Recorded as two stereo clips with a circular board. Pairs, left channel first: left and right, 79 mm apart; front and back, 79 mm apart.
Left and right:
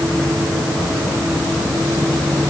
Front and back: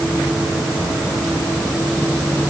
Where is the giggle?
No giggle in this recording.